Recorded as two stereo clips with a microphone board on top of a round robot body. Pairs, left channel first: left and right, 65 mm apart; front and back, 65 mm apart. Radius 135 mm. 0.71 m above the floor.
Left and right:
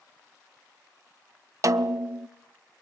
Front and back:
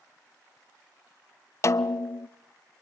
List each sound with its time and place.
1.6 s a snare drum: 50° right, 0.7 m